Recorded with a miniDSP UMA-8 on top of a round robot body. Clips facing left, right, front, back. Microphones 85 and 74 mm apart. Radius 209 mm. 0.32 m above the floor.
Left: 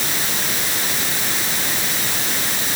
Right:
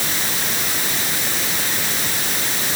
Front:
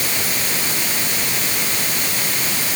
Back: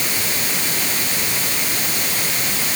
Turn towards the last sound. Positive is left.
No sound to turn to.